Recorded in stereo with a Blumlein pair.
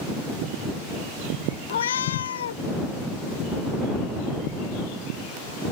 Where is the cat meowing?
65° left.